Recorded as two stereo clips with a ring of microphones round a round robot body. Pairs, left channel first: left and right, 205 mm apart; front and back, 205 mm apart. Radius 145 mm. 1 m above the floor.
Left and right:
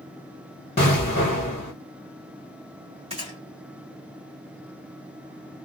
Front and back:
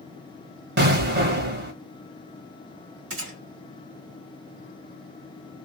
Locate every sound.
0.8 s an explosion: 155° left, 1.2 m
3.1 s a gunshot: 160° right, 1.6 m